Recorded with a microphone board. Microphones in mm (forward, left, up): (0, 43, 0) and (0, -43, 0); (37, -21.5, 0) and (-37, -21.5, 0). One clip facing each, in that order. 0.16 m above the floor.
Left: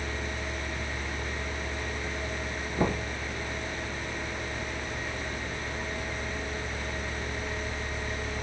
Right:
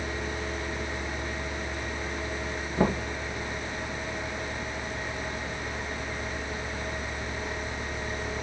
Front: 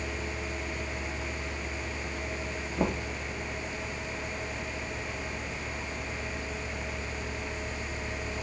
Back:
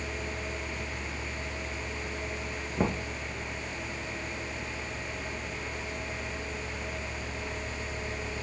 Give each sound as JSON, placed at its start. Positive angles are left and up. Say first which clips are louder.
{"t": 2.8, "sound": "knocking", "louder": "right 3 dB, even", "azimuth_deg": -145, "distance_m": 2.5}